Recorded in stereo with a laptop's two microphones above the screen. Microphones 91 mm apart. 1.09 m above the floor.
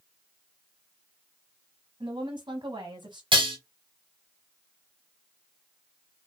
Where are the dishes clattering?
70° right (ahead or behind), 0.7 m.